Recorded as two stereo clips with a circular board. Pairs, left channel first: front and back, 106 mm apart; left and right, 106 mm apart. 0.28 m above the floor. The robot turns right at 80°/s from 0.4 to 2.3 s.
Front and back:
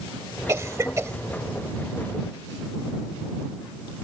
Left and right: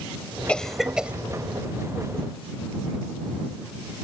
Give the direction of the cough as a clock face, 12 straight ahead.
7 o'clock.